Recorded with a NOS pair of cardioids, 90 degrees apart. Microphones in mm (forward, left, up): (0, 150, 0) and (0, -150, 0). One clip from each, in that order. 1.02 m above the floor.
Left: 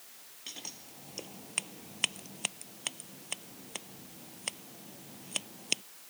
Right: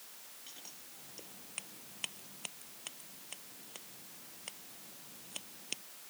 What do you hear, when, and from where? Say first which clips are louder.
0.5 s scissors: left 10 dB; 65° left